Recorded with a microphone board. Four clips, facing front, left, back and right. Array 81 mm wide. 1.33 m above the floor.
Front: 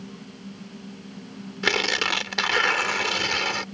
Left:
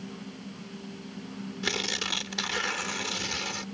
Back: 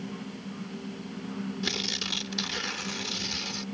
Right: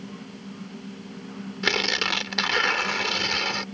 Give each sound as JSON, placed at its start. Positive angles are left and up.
{"t": 1.6, "sound": "tearing paper", "azimuth_deg": -30}